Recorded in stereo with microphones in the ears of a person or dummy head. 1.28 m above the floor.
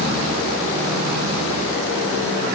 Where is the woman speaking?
No woman speaking in this recording.